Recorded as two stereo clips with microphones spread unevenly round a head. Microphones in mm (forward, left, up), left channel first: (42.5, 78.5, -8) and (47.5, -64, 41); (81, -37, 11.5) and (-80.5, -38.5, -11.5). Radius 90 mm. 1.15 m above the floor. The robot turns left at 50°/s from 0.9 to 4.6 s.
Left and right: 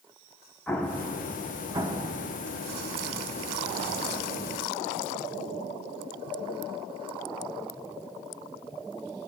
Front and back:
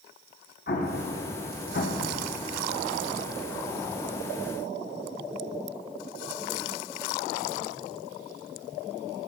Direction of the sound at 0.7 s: 30° left.